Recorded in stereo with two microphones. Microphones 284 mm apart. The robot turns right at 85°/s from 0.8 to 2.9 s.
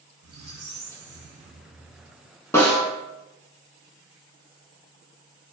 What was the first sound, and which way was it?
A squeak, 85° right.